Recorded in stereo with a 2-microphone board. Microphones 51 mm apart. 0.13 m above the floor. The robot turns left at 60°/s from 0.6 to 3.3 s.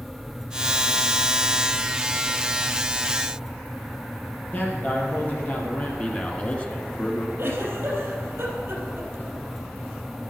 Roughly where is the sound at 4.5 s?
Left.